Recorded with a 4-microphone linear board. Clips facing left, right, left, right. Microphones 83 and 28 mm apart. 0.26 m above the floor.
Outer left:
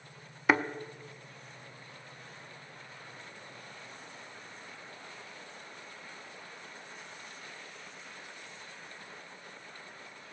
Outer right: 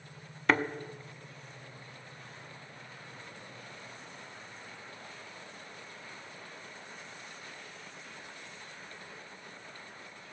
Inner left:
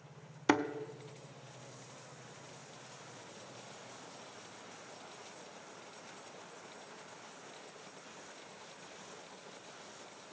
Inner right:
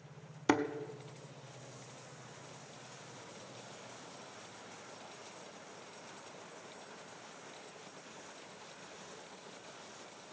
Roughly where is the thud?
Centre.